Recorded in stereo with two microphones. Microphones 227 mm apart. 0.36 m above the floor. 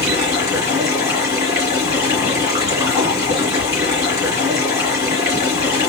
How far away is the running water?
About 3 m.